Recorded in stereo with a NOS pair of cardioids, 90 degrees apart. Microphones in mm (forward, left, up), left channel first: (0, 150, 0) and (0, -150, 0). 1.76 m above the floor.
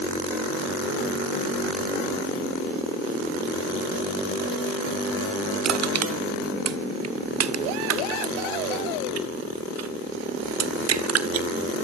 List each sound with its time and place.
5.6 s crushing: 55° right, 1.7 m